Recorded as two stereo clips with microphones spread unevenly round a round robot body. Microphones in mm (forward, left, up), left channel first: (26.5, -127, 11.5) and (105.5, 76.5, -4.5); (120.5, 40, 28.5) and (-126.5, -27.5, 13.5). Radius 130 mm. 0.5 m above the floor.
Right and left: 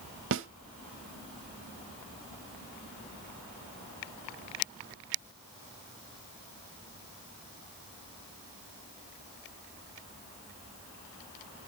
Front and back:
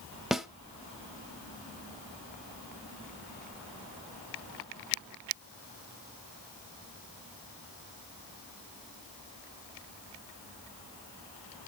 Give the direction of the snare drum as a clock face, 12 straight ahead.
8 o'clock.